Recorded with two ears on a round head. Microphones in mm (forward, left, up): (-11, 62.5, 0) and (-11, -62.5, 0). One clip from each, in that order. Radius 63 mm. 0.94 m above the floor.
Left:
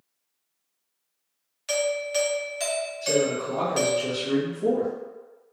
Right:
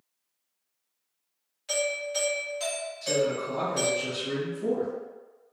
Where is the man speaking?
15° right (ahead or behind), 1.4 m.